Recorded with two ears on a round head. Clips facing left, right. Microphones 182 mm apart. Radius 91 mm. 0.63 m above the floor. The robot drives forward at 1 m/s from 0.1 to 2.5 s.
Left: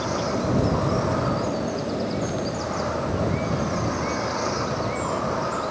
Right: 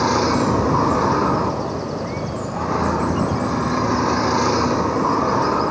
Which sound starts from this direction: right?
A vehicle, at 0.0 s.